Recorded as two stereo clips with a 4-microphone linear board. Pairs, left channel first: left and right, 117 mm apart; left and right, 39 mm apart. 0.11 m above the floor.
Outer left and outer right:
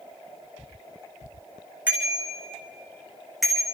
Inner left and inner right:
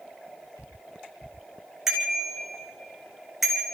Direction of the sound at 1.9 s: 10° right (ahead or behind).